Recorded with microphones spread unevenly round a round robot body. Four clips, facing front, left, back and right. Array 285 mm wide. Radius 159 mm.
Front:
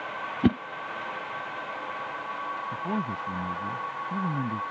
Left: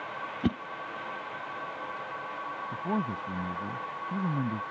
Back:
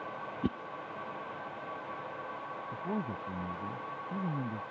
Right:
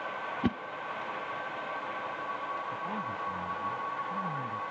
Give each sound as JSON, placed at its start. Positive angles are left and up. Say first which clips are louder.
{"t": 0.4, "sound": "a whoosh", "louder": "left 2 dB, front 12 dB", "azimuth_deg": 10}
{"t": 2.7, "sound": "a man speaking", "louder": "left 4 dB, front 4 dB", "azimuth_deg": 55}